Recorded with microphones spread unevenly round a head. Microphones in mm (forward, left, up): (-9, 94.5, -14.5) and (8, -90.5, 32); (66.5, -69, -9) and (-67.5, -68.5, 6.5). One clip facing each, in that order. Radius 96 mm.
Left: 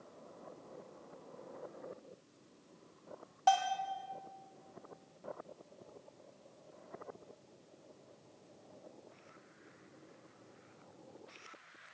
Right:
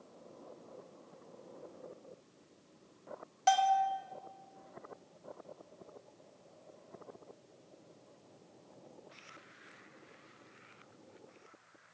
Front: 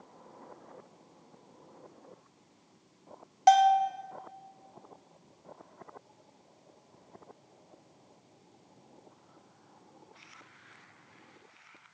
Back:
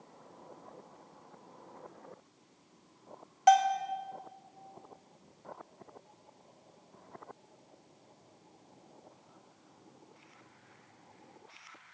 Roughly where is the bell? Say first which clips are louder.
Right 3 dB, front 3 dB; ahead right.